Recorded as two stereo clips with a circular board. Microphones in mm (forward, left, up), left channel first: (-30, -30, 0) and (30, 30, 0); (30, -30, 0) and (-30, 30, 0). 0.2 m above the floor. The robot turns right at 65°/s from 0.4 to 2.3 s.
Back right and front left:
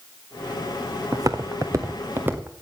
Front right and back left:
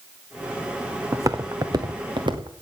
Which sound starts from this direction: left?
Footsteps, at 1.1 s.